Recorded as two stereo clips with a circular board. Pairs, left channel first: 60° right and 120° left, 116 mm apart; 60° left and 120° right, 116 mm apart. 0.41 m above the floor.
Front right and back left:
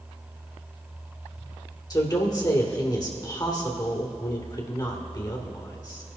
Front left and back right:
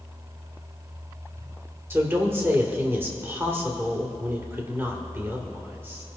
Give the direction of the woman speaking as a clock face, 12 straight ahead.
2 o'clock.